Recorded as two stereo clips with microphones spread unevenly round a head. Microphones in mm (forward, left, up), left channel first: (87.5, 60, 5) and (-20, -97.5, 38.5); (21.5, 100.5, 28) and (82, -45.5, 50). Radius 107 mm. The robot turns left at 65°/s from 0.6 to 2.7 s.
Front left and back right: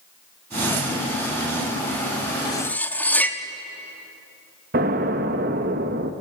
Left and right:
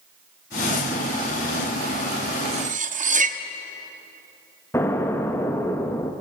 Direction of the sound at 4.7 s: 175° right.